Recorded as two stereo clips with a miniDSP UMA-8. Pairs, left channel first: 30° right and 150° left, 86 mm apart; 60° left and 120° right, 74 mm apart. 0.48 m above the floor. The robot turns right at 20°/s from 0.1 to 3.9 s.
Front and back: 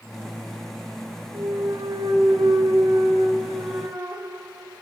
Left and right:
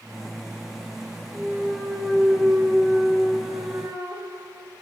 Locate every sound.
1.3 s a clunk: 145° left, 2.5 m; by 4.8 s 160° right, 2.5 m